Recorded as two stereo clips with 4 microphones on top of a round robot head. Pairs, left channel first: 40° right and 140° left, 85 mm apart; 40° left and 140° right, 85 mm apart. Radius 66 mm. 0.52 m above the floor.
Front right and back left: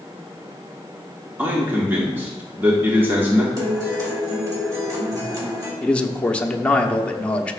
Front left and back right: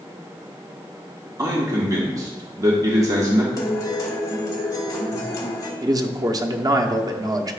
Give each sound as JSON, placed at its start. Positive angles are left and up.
{"t": 1.4, "sound": "a man speaking", "azimuth_deg": -165, "distance_m": 1.4}
{"t": 3.6, "sound": "a guitar", "azimuth_deg": 90, "distance_m": 2.5}
{"t": 5.8, "sound": "a man speaking", "azimuth_deg": -115, "distance_m": 0.9}